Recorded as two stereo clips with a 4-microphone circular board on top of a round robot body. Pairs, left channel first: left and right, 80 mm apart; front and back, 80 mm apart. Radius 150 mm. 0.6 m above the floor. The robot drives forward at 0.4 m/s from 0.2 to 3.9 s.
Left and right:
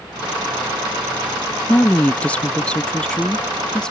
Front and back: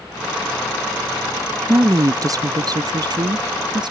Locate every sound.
1.7 s a woman speaking: 155° left; by 3.9 s 170° left